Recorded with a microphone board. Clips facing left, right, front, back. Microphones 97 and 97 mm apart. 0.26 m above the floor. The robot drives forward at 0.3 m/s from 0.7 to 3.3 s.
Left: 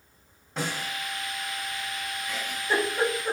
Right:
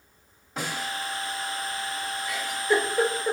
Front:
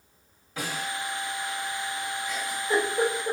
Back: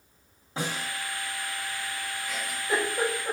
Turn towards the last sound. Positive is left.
turn(degrees=160)